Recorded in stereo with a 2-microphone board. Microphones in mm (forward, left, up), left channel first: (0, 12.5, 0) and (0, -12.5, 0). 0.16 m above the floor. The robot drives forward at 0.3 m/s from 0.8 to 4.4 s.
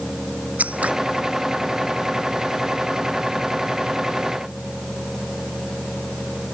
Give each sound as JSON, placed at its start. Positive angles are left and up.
{"t": 0.6, "sound": "scissors", "side_deg": -80}